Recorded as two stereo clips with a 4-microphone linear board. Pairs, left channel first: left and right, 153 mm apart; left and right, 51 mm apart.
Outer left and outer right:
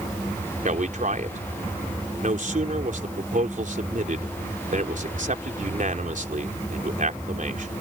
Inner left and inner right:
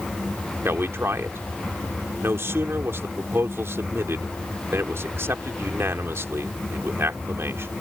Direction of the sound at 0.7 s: 60° right (ahead or behind).